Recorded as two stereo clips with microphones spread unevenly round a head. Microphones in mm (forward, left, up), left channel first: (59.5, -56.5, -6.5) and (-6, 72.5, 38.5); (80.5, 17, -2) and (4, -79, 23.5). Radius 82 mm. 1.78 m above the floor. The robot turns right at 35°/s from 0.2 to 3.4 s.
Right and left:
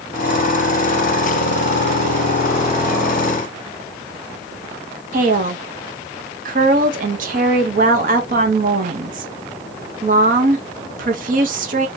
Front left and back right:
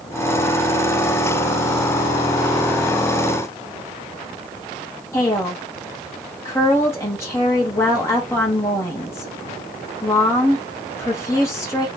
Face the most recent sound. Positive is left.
turn(degrees=130)